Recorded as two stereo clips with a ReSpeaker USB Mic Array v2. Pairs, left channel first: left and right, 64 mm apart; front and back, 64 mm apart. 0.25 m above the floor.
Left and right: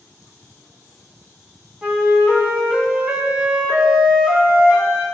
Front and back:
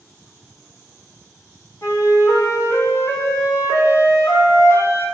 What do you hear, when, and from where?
1.8 s a flute: 20° right, 1.4 m